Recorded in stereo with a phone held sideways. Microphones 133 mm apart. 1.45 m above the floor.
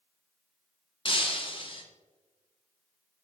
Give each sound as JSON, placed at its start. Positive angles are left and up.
{"t": 1.1, "sound": "breaking glass", "side_deg": 40, "distance_m": 1.0}